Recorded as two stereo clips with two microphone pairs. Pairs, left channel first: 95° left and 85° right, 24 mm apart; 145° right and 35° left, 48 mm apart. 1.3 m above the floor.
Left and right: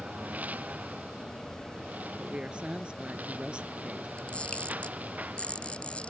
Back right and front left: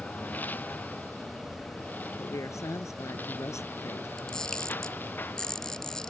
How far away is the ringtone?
No ringtone in this recording.